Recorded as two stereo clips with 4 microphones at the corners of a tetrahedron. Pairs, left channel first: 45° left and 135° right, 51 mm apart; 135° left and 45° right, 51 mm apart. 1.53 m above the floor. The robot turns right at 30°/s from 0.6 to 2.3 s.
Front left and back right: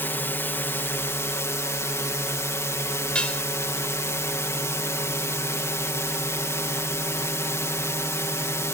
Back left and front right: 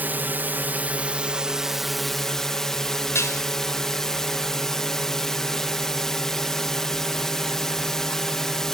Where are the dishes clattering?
115° left.